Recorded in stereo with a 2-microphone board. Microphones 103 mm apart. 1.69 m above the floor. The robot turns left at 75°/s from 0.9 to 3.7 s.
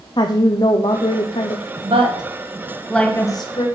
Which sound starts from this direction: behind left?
A woman speaking, at 0.2 s.